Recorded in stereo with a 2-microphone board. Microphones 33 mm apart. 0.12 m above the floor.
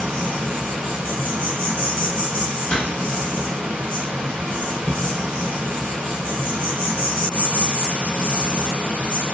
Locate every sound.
0.0 s an insect: 85° right, 1.3 m
2.7 s a door slam: 30° left (ahead or behind), 0.8 m